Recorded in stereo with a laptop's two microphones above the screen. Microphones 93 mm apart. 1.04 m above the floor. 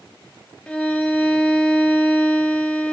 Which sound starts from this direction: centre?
A violin, at 0.7 s.